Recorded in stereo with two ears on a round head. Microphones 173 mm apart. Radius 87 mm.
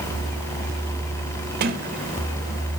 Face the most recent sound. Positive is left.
turn(degrees=-50)  # may be behind; listen again after turning